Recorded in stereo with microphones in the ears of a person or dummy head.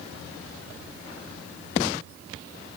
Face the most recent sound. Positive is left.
No sound to turn to.